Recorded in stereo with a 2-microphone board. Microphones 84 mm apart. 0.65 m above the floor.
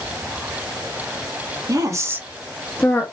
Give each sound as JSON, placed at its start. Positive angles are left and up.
{"t": 1.7, "sound": "a woman speaking", "side_deg": -45, "distance_m": 0.9}